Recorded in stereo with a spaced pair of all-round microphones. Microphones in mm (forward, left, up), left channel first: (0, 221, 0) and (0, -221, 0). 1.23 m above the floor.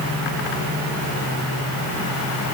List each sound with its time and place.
Only background noise.